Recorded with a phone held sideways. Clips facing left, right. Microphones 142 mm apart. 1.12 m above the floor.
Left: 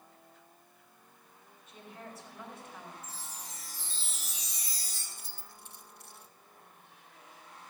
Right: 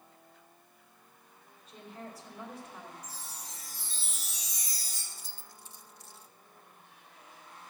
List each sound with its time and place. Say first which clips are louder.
1.7 s a woman speaking: right 2 dB; 35° right (ahead or behind), 4 m
3.0 s a chime: even; 40° right (ahead or behind), 5 m
5.1 s keys jangling: left 1 dB; 60° left (ahead or behind), 0.8 m